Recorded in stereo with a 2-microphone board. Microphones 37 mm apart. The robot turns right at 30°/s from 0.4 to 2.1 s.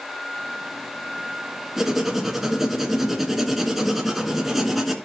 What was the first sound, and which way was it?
Writing, 10° right (ahead or behind).